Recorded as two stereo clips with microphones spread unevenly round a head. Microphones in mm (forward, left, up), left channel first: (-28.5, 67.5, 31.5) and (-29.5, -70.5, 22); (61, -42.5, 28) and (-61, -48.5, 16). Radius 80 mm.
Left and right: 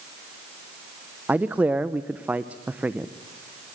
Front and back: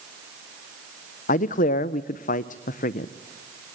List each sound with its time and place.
1.3 s a man speaking: 10° right, 0.6 m